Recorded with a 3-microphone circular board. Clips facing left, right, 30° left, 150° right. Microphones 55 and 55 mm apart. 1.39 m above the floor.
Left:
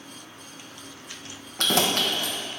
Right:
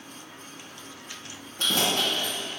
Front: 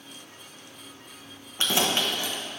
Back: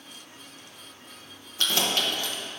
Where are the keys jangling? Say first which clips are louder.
Left 2 dB, front 1 dB; 95° left, 0.9 m.